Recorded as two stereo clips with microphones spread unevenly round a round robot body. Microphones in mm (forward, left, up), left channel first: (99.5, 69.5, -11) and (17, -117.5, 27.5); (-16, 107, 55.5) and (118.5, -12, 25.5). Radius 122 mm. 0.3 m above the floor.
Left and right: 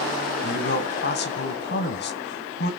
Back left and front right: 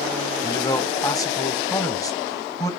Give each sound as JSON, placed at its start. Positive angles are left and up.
{"t": 0.4, "sound": "a man speaking", "azimuth_deg": 65, "distance_m": 1.9}